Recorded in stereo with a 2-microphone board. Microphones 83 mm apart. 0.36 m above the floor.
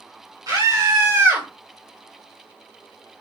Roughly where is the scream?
Right.